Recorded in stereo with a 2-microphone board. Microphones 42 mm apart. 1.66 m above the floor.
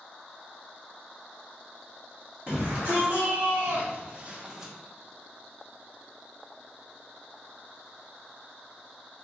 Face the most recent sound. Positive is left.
turn(degrees=-15)  # may be behind; listen again after turning